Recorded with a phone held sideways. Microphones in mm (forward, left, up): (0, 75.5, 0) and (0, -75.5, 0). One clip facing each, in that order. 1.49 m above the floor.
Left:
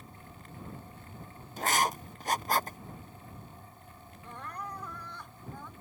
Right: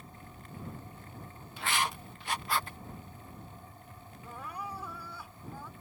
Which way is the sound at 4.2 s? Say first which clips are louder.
Even; 5° right (ahead or behind).